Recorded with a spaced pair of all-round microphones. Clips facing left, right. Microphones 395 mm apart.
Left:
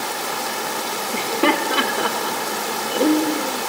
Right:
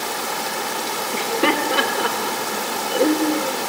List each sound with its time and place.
1.1 s laughter: centre (ahead or behind), 5 m